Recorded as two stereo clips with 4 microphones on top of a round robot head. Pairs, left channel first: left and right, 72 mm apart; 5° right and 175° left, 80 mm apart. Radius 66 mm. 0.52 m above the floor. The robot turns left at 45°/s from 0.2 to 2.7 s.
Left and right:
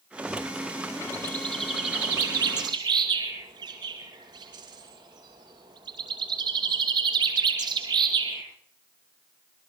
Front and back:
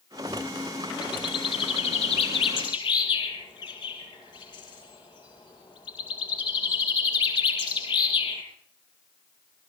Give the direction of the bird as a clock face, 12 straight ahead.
11 o'clock.